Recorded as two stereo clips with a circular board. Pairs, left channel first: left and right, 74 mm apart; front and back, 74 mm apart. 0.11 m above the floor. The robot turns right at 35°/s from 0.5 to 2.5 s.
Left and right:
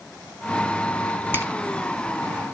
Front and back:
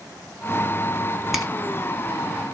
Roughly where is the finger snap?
Right.